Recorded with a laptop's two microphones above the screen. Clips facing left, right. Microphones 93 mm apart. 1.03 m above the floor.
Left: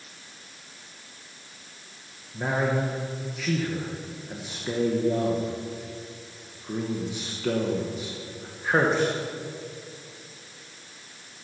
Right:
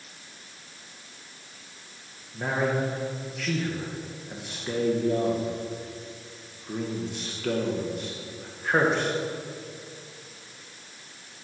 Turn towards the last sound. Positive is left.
turn(degrees=5)  # may be behind; listen again after turning